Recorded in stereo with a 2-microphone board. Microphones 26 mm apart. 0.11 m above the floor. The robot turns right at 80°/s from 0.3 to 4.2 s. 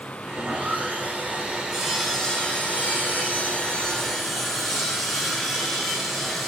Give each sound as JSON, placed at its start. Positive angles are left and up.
{"t": 0.3, "sound": "sawing", "azimuth_deg": -130, "distance_m": 6.5}